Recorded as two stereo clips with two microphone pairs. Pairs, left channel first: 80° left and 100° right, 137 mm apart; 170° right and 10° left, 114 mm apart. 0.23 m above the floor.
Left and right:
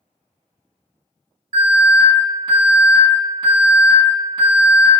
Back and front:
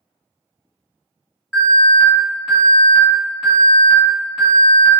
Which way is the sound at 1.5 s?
75° right.